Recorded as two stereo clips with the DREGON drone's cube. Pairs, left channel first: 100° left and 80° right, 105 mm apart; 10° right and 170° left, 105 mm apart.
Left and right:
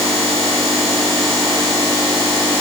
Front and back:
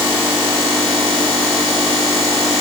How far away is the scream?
No scream in this recording.